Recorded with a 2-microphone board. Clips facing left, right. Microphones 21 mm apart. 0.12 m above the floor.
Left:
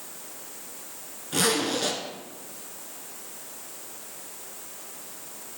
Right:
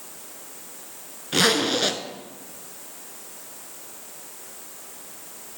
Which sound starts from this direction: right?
A zipper, at 1.3 s.